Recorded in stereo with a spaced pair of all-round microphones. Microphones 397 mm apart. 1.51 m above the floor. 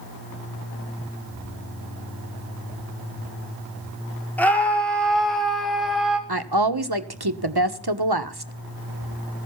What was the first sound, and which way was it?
A scream, 5° left (ahead or behind).